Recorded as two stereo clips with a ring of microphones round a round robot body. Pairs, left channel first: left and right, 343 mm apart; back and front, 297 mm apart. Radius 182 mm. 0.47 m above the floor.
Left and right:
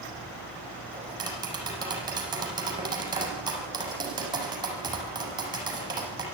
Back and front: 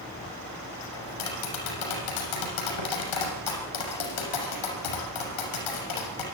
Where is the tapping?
170° right, 6.5 m.